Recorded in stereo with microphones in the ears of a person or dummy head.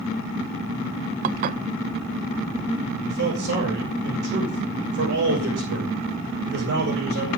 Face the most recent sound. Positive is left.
turn(degrees=-60)  # may be behind; listen again after turning